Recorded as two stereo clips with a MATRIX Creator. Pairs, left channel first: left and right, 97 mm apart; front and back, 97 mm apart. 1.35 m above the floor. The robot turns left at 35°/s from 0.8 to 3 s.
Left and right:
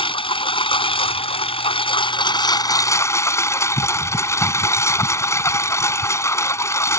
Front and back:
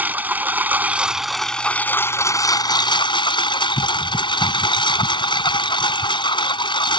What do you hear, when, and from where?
0.0 s a lawn mower: 110° left; by 7.0 s 30° left